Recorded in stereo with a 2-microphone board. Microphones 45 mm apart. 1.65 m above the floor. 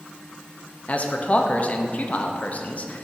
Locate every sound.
0.9 s a man speaking: 35° left (ahead or behind), 0.6 m